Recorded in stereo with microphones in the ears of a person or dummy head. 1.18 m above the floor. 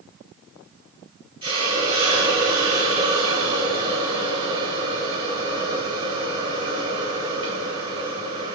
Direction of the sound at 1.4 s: 30° right (ahead or behind).